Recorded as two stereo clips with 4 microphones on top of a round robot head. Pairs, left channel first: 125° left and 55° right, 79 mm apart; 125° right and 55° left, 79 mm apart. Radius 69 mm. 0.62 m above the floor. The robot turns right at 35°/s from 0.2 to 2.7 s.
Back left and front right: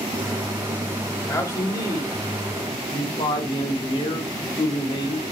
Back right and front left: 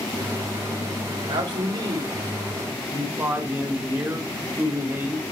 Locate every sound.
1.2 s a man speaking: 65° left, 2 m; by 5.2 s 120° left, 2 m